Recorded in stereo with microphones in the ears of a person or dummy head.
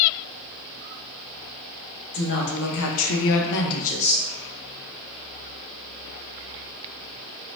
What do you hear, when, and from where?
2.1 s a woman speaking: 60° left (ahead or behind), 0.9 m; by 4.2 s 25° left (ahead or behind), 0.7 m